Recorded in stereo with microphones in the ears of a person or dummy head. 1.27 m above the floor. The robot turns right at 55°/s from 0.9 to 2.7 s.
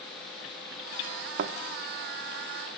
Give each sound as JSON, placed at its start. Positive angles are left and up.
{"t": 1.4, "sound": "a thud", "side_deg": -55, "distance_m": 1.3}